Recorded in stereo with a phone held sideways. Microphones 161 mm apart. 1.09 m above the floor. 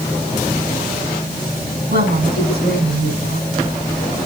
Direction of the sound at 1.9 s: 85° right.